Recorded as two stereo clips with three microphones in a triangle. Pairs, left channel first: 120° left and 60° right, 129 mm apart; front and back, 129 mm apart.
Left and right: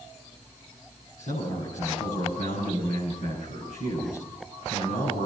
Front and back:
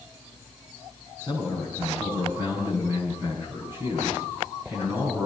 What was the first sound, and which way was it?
A man speaking, 110° left.